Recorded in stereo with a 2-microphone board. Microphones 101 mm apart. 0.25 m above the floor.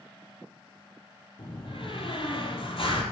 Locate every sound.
1.4 s a door slam: 65° left (ahead or behind), 5.5 m